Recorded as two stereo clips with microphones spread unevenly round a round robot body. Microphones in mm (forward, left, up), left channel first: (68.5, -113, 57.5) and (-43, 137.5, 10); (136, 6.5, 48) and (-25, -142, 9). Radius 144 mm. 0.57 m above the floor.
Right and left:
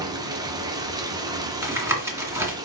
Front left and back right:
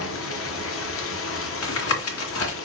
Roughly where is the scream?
No scream in this recording.